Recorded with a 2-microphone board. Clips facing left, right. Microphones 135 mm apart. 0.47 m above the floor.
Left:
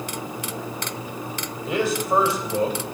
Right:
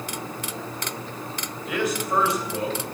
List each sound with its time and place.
1.7 s a man speaking: 30° left (ahead or behind), 2.5 m